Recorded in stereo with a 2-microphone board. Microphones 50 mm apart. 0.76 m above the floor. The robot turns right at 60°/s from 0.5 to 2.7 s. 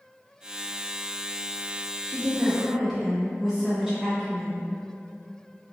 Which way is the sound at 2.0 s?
55° right.